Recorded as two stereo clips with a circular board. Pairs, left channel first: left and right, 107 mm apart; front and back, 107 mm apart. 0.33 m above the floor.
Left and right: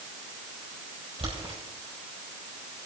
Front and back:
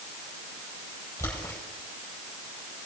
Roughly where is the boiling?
Ahead right.